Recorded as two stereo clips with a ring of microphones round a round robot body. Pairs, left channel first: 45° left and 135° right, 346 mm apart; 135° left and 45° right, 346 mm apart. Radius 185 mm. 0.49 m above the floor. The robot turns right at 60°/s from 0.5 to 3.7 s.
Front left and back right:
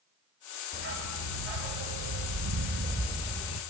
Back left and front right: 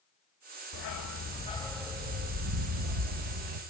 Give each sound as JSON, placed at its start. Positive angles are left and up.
{"t": 0.7, "sound": "a dog barking", "azimuth_deg": 160, "distance_m": 1.0}